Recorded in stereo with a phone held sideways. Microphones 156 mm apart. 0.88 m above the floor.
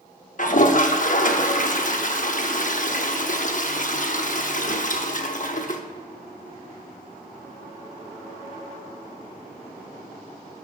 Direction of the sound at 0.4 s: 55° left (ahead or behind).